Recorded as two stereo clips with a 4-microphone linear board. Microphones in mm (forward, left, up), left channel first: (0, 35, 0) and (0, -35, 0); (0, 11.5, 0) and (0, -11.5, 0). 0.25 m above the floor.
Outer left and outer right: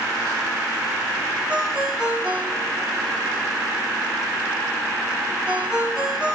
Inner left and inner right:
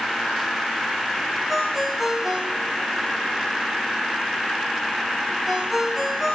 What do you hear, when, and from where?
1.5 s a ringtone: 10° right (ahead or behind), 5.5 m